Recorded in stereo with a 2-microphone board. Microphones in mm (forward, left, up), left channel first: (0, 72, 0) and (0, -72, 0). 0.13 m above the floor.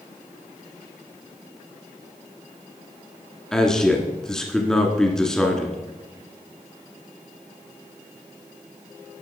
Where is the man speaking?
5° left (ahead or behind), 1.6 m.